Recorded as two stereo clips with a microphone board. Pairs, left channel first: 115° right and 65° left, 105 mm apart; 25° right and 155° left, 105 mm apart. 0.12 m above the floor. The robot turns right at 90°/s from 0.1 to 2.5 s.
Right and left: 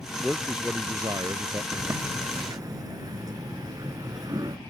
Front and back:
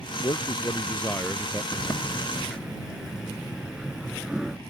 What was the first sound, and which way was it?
A man speaking, 35° right.